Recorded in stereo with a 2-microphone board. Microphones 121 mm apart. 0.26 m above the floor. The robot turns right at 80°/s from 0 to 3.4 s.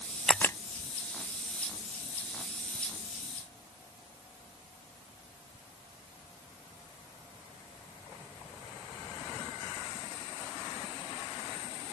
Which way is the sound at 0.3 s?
5° left (ahead or behind).